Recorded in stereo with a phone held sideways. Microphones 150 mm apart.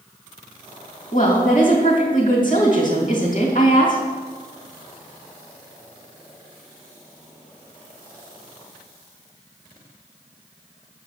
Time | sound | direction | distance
1.1 | a woman speaking | 60° left (ahead or behind) | 2.5 m